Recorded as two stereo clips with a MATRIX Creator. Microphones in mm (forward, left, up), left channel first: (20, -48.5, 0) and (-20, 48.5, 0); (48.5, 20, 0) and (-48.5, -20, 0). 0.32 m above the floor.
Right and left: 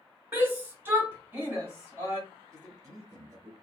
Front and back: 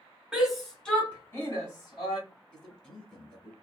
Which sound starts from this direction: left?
A man speaking, at 2.5 s.